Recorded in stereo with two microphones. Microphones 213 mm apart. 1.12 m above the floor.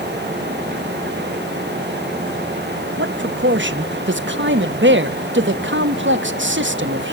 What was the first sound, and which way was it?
A man speaking, 60° right (ahead or behind).